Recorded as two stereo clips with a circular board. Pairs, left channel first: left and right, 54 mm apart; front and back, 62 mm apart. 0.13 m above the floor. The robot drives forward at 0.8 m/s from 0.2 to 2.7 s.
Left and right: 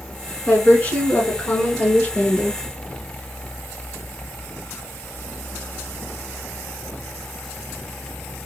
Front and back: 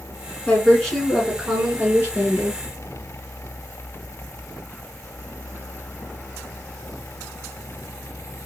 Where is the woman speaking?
45° left, 1.4 m; by 2.6 s 150° left, 1.7 m.